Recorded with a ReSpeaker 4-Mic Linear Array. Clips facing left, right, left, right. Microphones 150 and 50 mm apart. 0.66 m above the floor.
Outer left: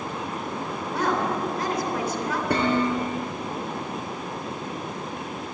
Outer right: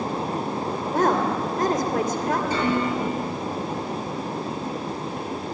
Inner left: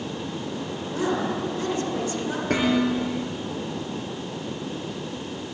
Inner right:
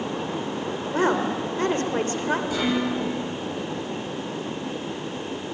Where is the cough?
No cough in this recording.